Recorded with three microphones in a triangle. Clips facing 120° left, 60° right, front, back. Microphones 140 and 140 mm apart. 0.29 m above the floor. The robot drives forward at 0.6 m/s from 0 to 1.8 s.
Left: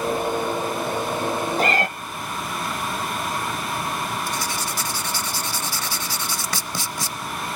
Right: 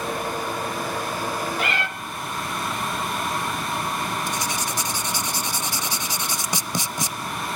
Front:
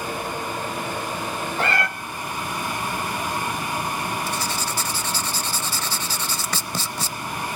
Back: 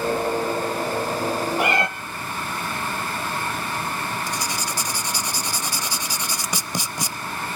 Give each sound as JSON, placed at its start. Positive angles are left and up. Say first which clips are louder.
{"t": 1.6, "sound": "a cat meowing", "louder": "left 5 dB, even", "azimuth_deg": 110, "distance_m": 0.6}
{"t": 4.3, "sound": "writing", "louder": "even, front 1 dB", "azimuth_deg": -115, "distance_m": 0.7}